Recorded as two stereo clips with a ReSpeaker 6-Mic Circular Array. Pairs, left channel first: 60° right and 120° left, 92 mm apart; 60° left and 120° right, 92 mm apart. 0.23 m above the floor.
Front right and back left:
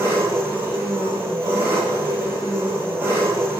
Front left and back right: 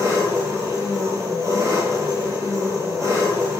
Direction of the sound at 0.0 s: 175° right.